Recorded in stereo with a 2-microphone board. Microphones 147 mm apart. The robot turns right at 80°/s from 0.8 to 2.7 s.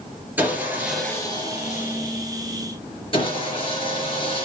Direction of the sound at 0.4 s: 10° right.